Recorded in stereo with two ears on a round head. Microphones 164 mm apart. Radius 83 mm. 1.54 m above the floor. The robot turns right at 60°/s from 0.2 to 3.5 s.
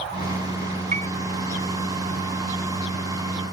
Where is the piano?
40° right (ahead or behind); by 1.1 s 30° right (ahead or behind).